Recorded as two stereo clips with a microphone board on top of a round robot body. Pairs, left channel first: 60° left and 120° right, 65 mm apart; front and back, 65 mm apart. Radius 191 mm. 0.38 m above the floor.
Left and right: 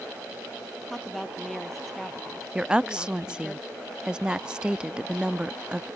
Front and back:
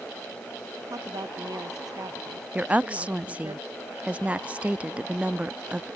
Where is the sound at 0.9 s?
150° left.